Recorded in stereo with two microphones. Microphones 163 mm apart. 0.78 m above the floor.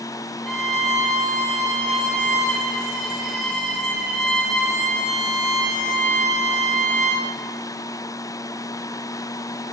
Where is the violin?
Centre (ahead or behind), 3.5 m.